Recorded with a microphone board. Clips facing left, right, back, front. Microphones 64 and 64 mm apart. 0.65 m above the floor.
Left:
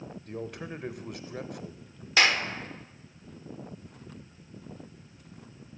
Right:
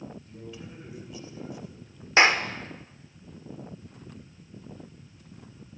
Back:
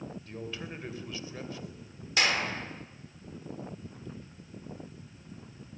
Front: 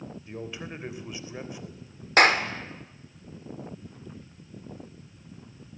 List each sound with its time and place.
0.3 s a man speaking: 75° left, 3 m
2.2 s a clap: 30° right, 1.9 m